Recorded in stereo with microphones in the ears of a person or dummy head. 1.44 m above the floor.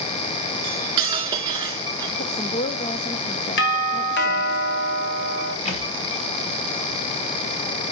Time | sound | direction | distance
0.6 | cutlery clinking | 25° right (ahead or behind) | 1.8 m
2.2 | a woman speaking | 30° left (ahead or behind) | 1.2 m
3.6 | a doorbell | 60° left (ahead or behind) | 2.0 m
5.7 | a thud | 35° left (ahead or behind) | 6 m